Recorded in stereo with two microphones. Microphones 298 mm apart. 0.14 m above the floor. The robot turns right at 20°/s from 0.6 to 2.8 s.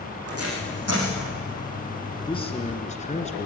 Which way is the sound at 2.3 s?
15° left (ahead or behind).